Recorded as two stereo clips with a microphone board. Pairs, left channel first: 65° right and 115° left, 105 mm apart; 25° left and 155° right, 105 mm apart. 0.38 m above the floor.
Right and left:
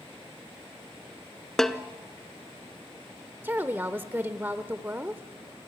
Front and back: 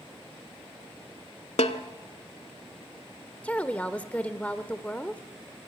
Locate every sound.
1.6 s a snare drum: 20° left, 0.8 m
3.4 s a woman speaking: 80° left, 0.9 m